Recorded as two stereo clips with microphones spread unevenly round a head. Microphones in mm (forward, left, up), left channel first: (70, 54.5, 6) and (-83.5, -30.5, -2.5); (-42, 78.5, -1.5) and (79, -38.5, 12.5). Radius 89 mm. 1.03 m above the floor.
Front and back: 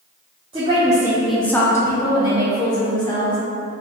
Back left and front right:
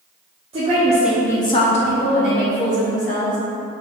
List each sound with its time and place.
0.5 s a woman speaking: 95° right, 0.8 m; by 3.4 s 95° left, 2.5 m